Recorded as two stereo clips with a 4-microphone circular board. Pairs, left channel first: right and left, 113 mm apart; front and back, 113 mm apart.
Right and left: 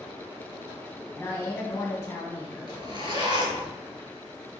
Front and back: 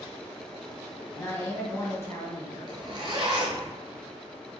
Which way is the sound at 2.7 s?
135° left.